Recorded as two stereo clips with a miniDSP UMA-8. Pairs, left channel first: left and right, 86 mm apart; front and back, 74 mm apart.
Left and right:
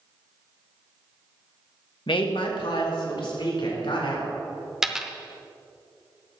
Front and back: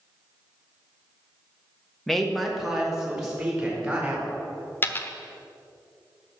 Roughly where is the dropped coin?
Ahead.